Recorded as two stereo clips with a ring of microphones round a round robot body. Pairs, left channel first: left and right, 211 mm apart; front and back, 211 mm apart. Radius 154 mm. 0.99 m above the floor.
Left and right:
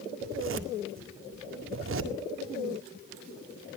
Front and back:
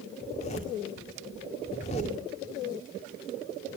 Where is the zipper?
70° right, 2.0 m.